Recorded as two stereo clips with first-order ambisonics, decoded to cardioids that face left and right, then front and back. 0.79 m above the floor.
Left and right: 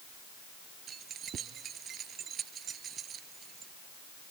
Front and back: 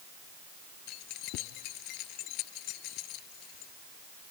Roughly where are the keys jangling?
Ahead right.